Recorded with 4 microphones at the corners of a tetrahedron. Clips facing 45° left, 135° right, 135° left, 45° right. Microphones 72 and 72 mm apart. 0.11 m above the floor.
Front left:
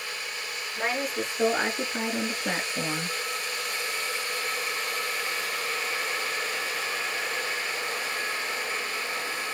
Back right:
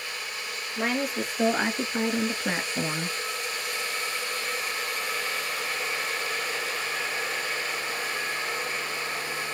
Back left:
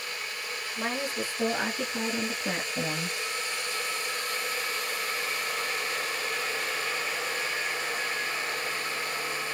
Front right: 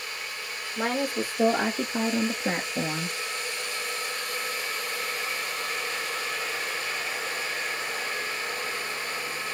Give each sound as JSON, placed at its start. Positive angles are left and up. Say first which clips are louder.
{"t": 0.8, "sound": "a woman speaking", "louder": "back right 1 dB, front right 5 dB", "azimuth_deg": -45, "distance_m": 3.0}